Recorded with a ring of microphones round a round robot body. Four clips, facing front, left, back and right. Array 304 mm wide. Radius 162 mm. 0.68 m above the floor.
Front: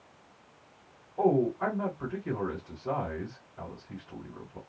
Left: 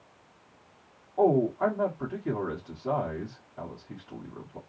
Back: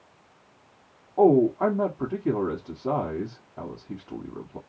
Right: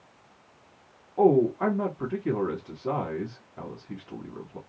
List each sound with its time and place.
1.2 s a man speaking: 160° right, 1.8 m